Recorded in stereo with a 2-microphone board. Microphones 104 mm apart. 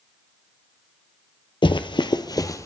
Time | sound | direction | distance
1.6 | running footsteps | 50° left (ahead or behind) | 0.6 m